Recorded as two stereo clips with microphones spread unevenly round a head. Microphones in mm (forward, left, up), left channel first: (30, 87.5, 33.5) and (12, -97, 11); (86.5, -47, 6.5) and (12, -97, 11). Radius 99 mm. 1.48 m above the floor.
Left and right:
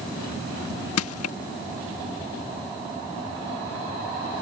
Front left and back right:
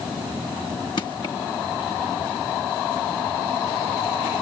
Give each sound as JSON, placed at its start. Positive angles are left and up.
{"t": 1.0, "sound": "crushing", "azimuth_deg": 105}